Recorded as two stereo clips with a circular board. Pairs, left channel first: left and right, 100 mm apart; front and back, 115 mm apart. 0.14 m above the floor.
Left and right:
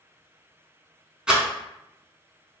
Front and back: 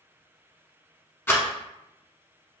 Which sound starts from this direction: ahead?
A rattle, at 1.3 s.